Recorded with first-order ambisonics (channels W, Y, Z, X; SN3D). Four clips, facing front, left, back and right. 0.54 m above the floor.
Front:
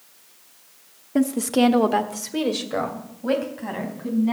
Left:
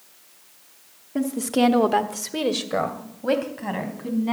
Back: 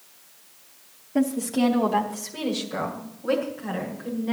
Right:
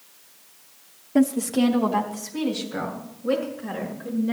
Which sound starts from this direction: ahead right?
A woman speaking, at 1.1 s.